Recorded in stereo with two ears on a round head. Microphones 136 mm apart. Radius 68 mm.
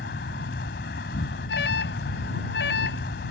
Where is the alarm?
80° left.